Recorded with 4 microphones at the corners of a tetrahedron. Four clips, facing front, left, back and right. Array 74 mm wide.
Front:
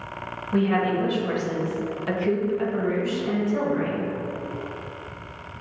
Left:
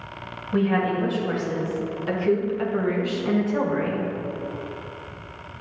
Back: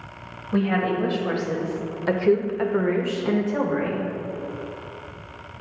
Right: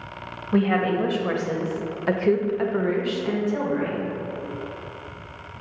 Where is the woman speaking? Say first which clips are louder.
Right 1 dB, even; 90° right, 1.6 m; by 4.1 s 135° left, 1.1 m.